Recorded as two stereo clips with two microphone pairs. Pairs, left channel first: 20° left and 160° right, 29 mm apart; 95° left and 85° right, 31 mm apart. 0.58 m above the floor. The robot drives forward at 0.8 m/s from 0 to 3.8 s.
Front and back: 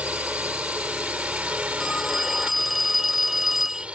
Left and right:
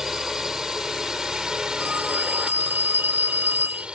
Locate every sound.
0.0 s a drone: 155° right; by 4.0 s 125° right
1.8 s a phone ringing: 70° right; by 3.9 s 85° right